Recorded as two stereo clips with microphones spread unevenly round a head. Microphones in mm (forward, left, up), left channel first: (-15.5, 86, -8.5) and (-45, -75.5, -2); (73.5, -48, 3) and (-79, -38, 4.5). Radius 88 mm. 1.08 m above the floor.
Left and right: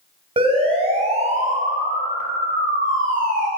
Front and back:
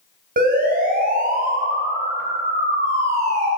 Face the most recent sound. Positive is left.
turn(degrees=-140)